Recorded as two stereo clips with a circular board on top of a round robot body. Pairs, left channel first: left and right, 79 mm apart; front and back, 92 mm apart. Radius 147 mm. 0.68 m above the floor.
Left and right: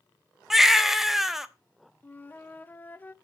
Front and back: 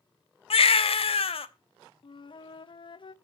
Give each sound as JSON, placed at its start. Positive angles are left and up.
{"t": 0.5, "sound": "a baby crying", "azimuth_deg": -5, "distance_m": 0.9}
{"t": 2.0, "sound": "a flute", "azimuth_deg": 25, "distance_m": 0.8}